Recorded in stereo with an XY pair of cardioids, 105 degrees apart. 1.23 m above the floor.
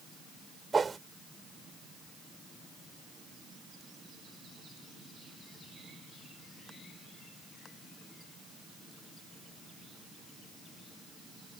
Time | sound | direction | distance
0.7 | a whoosh | 30° right | ?